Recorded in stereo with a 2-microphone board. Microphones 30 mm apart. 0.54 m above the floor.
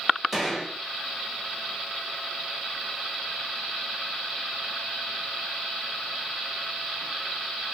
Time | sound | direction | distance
0.3 | a gunshot | 5° right (ahead or behind) | 1.9 m